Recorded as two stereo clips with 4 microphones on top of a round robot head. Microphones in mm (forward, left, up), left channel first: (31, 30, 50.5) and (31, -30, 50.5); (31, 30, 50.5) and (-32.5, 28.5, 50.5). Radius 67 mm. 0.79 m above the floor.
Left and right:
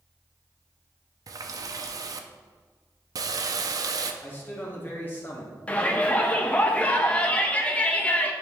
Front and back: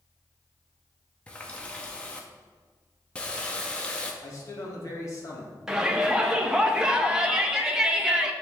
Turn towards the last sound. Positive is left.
turn(degrees=115)